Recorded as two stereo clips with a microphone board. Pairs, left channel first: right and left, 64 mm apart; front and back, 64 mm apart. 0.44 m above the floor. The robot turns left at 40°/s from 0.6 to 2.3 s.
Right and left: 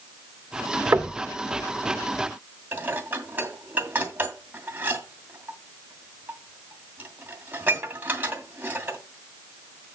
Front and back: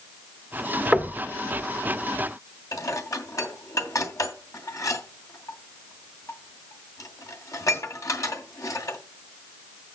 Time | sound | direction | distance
0.9 | knocking | 100° left | 0.8 m
2.7 | dishes clattering | 30° left | 2 m